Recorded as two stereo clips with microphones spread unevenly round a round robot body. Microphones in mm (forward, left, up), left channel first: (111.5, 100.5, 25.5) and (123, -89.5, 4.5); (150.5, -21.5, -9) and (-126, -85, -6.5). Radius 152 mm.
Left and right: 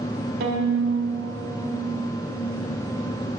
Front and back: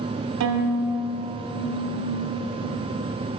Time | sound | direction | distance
0.4 | a violin | 145° right | 1.2 m